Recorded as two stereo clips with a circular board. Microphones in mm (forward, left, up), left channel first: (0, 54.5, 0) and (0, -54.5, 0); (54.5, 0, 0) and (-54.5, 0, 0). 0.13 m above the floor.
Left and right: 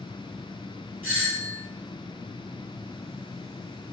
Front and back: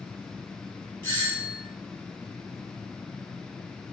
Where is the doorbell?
40° right, 2 m.